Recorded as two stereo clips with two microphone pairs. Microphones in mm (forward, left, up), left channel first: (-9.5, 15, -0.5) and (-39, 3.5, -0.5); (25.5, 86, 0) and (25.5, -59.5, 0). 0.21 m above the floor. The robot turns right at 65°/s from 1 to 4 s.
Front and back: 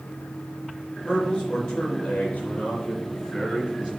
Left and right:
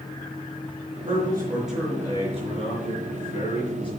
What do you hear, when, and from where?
1.1 s a man speaking: 45° right, 3.5 m; by 3.9 s 140° left, 3.5 m